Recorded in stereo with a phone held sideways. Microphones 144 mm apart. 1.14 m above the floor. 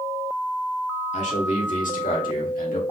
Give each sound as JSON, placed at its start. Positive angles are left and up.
{"t": 1.1, "sound": "a man speaking", "side_deg": 55, "distance_m": 2.0}